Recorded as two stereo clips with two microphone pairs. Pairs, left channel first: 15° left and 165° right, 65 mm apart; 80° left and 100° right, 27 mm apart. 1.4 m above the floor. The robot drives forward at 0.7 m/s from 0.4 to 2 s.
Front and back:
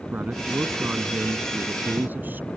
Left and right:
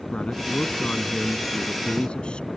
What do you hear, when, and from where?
0.1 s a man speaking: 130° left; by 2.5 s 135° left